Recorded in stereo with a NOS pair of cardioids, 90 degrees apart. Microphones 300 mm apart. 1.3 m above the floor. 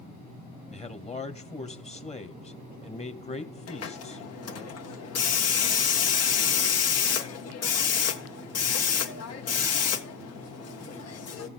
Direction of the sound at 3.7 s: 55° left.